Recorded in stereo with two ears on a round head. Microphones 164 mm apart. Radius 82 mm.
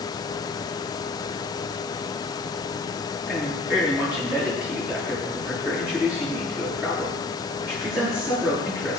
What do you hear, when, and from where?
3.3 s a man speaking: 5° right (ahead or behind), 8 m